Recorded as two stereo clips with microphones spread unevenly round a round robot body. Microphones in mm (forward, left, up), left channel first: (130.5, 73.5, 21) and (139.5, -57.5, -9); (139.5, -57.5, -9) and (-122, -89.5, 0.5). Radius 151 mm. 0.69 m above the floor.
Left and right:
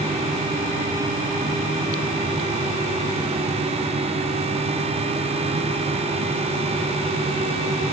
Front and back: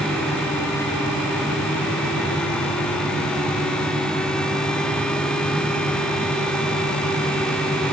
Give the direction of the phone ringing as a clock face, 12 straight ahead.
I don't hear a phone ringing.